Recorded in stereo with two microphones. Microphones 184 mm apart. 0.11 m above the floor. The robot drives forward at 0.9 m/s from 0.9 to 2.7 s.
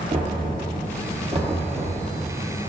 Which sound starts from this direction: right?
Knocking, at 0.1 s.